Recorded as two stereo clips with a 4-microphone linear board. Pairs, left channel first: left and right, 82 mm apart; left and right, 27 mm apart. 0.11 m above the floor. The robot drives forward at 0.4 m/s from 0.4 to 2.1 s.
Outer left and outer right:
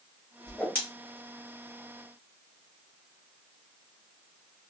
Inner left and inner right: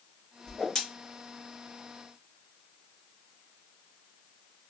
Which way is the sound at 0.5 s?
20° left (ahead or behind).